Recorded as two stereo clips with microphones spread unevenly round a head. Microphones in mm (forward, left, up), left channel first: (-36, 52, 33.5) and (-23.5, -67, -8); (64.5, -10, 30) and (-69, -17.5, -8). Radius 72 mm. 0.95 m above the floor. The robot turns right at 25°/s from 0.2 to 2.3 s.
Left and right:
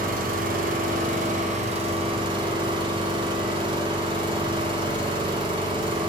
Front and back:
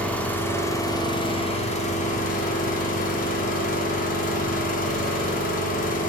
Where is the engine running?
80° right, 1.4 m; by 6.1 s 25° right, 1.4 m.